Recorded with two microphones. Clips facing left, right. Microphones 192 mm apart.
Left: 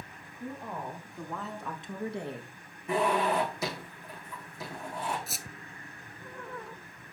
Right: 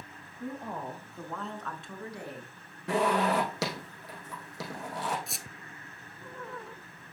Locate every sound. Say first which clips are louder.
0.4 s a woman speaking: right 1 dB; 15° right (ahead or behind), 2.5 m; by 2.5 s 30° left (ahead or behind), 1.9 m
2.9 s a zipper: right 1 dB; 75° right (ahead or behind), 4.5 m
5.3 s a squeak: left 1 dB; 5° left (ahead or behind), 0.7 m